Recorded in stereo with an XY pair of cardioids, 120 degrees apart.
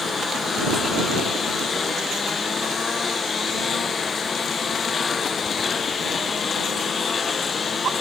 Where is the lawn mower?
30° left.